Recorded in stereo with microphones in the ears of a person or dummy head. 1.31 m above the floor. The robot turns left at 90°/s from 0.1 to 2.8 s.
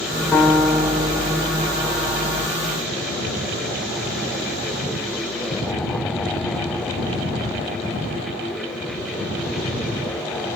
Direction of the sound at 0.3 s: 5° left (ahead or behind).